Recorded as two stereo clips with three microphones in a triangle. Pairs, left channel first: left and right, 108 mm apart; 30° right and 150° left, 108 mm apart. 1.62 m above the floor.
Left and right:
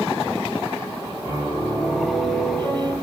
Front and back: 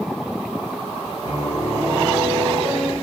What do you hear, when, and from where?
1.2 s a piano: 145° left, 2 m